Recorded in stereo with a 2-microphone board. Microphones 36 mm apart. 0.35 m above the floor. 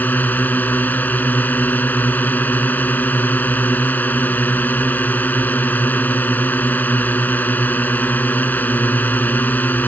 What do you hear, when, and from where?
0.0 s a drone: 55° left (ahead or behind)